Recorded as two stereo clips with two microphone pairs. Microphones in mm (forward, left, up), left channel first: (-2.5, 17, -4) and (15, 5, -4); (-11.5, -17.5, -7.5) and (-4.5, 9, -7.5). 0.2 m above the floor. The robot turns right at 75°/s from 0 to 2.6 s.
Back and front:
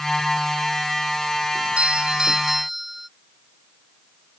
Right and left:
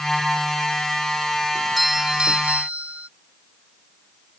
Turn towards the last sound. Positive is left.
turn(degrees=45)